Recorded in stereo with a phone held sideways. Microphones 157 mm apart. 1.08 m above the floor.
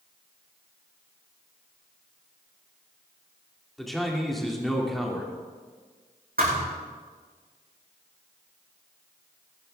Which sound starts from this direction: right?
A thud, at 6.4 s.